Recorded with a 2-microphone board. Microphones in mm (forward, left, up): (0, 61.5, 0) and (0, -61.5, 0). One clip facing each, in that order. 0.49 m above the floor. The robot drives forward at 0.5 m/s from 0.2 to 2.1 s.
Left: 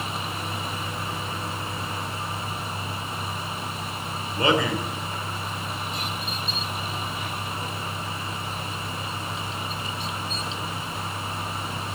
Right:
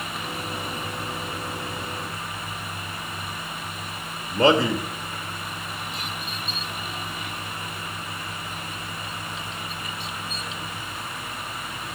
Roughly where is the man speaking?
Right.